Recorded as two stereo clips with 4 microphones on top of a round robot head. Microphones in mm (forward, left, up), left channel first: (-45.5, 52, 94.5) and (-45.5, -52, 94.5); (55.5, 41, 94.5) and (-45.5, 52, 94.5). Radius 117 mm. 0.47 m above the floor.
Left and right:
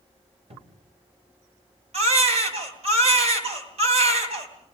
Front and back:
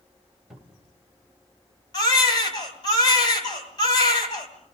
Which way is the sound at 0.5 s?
100° right.